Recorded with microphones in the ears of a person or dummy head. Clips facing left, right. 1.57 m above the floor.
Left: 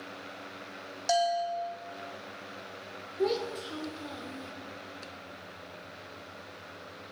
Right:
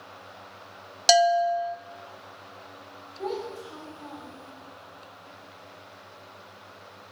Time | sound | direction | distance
1.1 | a bell | 70° right (ahead or behind) | 0.5 m
3.2 | a child speaking | 35° left (ahead or behind) | 1.1 m